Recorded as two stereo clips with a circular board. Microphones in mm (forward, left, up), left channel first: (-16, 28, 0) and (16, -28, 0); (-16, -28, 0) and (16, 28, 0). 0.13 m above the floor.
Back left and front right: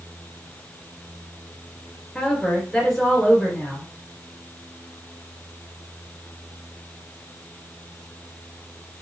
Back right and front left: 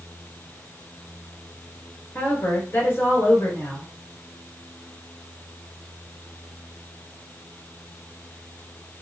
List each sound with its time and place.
2.1 s a woman speaking: 160° right, 1.9 m